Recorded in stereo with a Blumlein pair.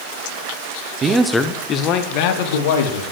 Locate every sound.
1.0 s a man speaking: 20° right, 1.1 m; by 3.0 s 60° left, 3 m